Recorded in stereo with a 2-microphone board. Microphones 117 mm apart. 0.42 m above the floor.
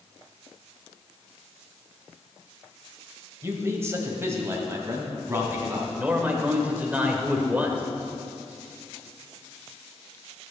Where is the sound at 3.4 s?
25° right (ahead or behind), 1.6 m; by 5.9 s 20° right (ahead or behind), 3 m.